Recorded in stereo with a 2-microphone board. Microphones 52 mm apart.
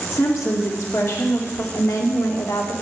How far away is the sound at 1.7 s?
About 1.5 m.